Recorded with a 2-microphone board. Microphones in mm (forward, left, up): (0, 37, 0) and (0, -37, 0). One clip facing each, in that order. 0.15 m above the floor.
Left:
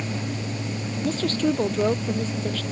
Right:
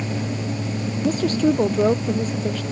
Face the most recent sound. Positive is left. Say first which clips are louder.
# right 4 dB
turn(degrees=-15)  # may be behind; listen again after turning